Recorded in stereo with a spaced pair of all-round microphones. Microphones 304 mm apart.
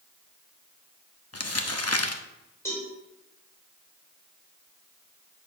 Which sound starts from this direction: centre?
A cowbell, at 2.6 s.